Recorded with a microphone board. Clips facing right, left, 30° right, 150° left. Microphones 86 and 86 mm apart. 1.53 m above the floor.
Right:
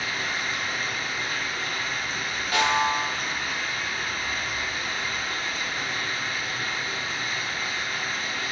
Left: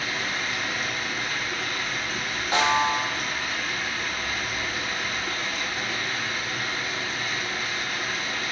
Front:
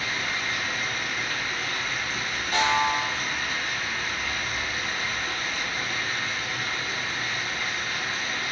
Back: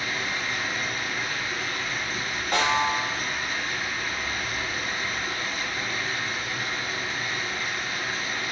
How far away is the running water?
About 3 m.